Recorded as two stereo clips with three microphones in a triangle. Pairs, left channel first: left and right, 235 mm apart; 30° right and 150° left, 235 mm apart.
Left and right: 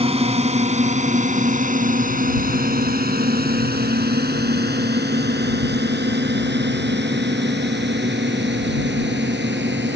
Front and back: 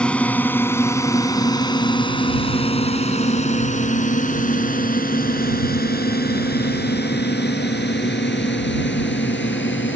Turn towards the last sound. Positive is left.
turn(degrees=-60)